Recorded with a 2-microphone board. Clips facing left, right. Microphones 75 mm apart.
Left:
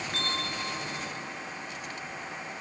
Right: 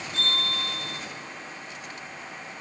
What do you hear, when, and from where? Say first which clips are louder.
0.1 s a bell: right 4 dB; 55° left (ahead or behind), 9 m